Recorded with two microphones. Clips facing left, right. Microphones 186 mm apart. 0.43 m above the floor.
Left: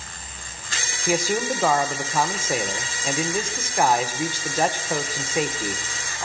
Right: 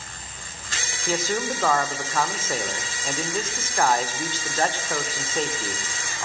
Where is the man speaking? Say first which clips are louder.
Left 3 dB; 10° left (ahead or behind), 1.1 m.